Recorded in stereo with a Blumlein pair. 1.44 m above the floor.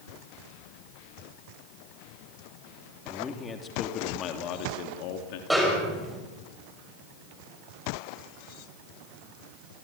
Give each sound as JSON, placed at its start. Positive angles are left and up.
{"t": 3.0, "sound": "a man speaking", "azimuth_deg": 15, "distance_m": 3.0}
{"t": 5.5, "sound": "a snare drum", "azimuth_deg": 0, "distance_m": 7.0}